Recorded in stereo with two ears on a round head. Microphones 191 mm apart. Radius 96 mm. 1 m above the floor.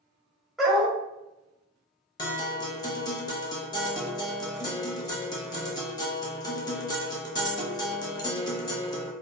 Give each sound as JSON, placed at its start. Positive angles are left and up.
{"t": 0.6, "sound": "a dog barking", "side_deg": 0, "distance_m": 1.0}
{"t": 2.2, "sound": "a guitar", "side_deg": 20, "distance_m": 0.8}